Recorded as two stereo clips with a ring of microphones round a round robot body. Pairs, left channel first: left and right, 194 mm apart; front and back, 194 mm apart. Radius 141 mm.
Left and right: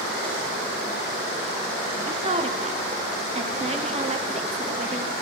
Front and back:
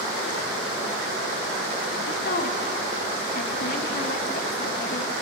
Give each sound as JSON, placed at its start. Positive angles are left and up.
{"t": 2.1, "sound": "a woman speaking", "azimuth_deg": -40, "distance_m": 1.7}